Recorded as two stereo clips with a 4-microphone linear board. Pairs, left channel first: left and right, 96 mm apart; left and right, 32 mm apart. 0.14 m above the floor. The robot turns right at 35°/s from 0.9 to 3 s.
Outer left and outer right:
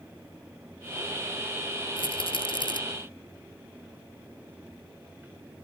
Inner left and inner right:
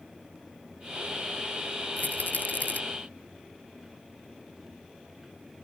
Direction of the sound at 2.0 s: 60° left (ahead or behind).